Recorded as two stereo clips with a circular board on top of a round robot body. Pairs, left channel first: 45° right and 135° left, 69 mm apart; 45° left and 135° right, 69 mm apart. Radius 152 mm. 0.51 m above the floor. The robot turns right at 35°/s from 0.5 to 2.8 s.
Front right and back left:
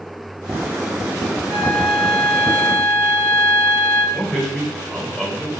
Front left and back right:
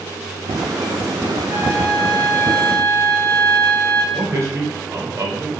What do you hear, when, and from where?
1.5 s a flute: 140° right, 0.6 m; by 4.0 s 95° right, 0.6 m
4.1 s a man speaking: 135° right, 1.5 m